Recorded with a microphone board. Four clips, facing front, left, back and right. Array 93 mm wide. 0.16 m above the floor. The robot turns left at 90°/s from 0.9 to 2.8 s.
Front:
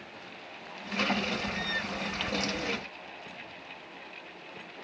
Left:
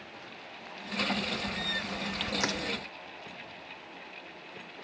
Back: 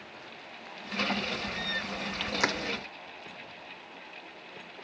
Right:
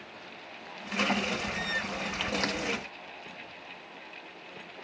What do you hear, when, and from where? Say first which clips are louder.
2.4 s crushing: left 2 dB, back 4 dB; 170° left; by 2.6 s 150° left